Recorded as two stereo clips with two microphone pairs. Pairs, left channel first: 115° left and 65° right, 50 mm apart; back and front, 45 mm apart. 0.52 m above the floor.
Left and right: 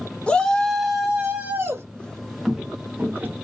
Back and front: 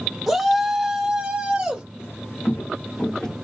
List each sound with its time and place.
0.3 s a shout: 80° left, 1.1 m; by 1.8 s 60° right, 1.3 m
2.0 s footsteps: 175° right, 1.0 m; by 3.3 s 100° right, 0.8 m